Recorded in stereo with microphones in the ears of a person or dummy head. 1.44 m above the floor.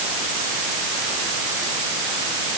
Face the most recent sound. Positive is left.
No sound to turn to.